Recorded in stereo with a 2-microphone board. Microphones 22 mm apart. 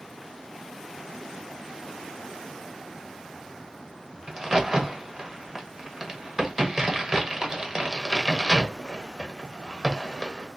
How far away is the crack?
About 0.9 m.